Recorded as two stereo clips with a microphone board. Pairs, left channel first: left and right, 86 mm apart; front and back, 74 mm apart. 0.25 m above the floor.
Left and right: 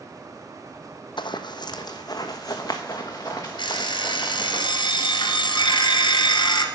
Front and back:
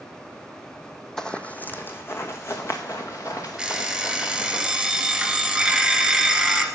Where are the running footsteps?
80° left, 0.7 m; by 4.6 s 35° left, 2.5 m.